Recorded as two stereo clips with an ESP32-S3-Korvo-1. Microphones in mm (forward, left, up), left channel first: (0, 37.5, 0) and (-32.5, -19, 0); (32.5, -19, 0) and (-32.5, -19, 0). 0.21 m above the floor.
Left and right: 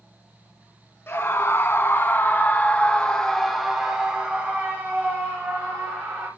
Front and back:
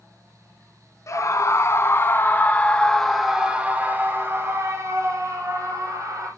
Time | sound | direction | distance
1.1 | a scream | 20° left | 2 m